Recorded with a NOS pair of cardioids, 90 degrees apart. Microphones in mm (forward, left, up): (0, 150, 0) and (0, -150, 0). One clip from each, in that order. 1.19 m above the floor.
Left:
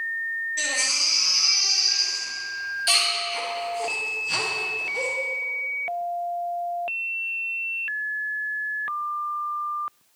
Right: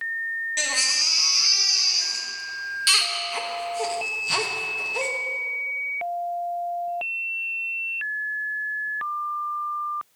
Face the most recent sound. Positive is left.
turn(degrees=-50)